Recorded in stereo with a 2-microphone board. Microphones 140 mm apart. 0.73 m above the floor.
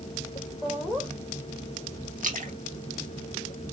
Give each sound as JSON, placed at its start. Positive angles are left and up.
{"t": 0.6, "sound": "laughter", "side_deg": 5, "distance_m": 3.0}
{"t": 2.2, "sound": "a splash", "side_deg": -70, "distance_m": 1.1}